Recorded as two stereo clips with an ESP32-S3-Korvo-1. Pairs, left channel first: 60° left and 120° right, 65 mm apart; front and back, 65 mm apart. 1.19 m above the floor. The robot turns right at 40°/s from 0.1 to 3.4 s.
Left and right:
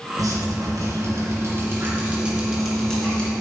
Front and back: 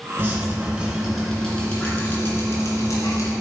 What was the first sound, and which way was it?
Dripping, 135° right.